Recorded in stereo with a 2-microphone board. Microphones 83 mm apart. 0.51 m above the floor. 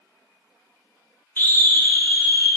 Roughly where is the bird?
No bird in this recording.